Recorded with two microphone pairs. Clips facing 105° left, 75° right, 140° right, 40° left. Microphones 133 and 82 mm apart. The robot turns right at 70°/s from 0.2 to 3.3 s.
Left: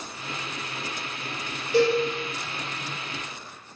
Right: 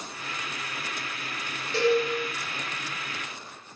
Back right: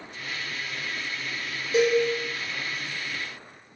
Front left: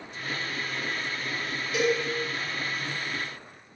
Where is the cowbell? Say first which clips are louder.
Left 2 dB, back right 5 dB; straight behind, 1.0 m; by 2.0 s 165° right, 1.0 m.